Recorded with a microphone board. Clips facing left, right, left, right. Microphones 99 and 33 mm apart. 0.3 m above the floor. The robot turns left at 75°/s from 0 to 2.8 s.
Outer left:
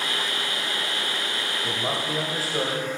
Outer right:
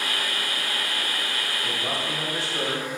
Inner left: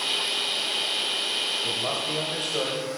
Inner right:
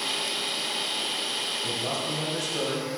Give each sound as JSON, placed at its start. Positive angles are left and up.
{"t": 1.6, "sound": "a man speaking", "azimuth_deg": 165, "distance_m": 1.1}